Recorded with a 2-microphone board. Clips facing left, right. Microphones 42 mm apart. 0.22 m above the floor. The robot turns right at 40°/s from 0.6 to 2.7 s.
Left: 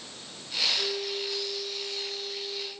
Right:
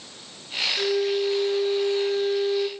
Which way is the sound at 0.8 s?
140° right.